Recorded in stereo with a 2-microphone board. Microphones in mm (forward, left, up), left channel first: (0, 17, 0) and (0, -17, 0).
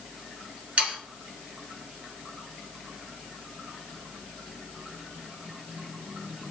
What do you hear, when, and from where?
0.8 s sawing: 40° right (ahead or behind), 2 m